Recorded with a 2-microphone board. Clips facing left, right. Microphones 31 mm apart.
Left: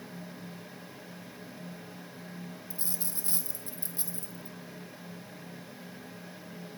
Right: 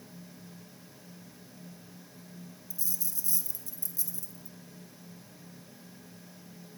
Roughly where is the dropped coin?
Left.